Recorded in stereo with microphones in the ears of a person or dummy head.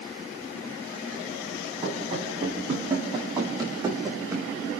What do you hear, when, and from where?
1.8 s running footsteps: 35° right (ahead or behind), 8 m; by 4.5 s 10° right (ahead or behind), 5.5 m